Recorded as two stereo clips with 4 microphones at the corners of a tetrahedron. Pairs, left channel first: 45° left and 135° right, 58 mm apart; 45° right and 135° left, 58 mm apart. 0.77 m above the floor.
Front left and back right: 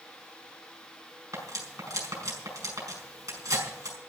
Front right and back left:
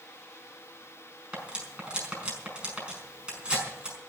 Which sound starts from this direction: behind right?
Cutlery clinking, at 1.3 s.